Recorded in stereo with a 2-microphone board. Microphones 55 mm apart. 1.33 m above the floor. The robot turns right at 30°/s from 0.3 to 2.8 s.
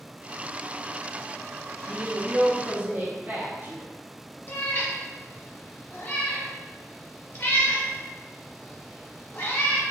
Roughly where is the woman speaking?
Centre.